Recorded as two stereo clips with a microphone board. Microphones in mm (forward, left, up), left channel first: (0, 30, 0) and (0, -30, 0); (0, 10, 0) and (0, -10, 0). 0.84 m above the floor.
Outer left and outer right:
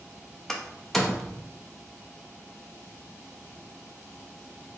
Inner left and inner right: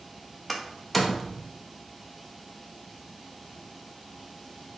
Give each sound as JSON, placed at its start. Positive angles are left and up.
{"t": 0.5, "sound": "a door slam", "side_deg": 5, "distance_m": 0.5}